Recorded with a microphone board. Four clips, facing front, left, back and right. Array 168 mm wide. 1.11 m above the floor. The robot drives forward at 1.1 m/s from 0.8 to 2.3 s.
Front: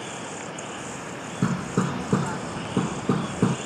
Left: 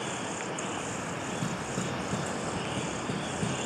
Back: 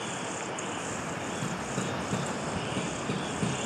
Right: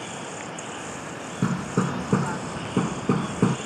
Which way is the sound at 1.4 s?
45° right.